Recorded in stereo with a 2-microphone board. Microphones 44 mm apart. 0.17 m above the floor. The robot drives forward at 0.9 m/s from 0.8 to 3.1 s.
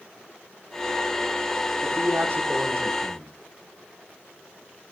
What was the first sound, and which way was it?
A man speaking, 50° right (ahead or behind).